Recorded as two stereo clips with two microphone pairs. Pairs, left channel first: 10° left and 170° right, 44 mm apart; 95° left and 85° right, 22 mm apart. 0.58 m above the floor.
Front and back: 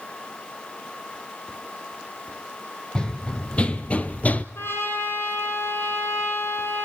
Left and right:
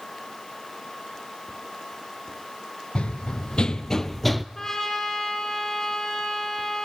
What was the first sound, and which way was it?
Running footsteps, 80° left.